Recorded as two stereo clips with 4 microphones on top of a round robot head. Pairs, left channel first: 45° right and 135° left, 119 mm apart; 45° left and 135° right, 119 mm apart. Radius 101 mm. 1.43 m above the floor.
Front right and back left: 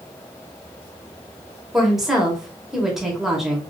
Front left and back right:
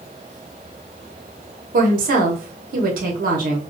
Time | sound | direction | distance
1.7 | a woman speaking | 135° right | 0.8 m